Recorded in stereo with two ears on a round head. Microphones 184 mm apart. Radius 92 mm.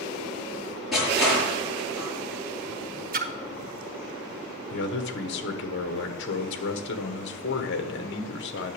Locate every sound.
0.9 s crushing: centre (ahead or behind), 7 m
3.1 s a splash: 45° right (ahead or behind), 1.0 m
4.7 s a man speaking: 55° left (ahead or behind), 1.4 m